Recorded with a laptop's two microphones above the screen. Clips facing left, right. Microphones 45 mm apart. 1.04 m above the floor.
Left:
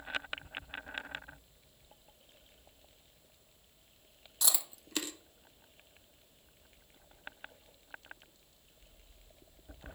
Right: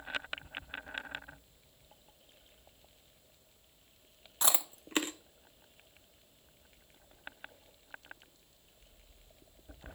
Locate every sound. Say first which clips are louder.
4.4 s chewing: right 4 dB; 40° right (ahead or behind), 0.6 m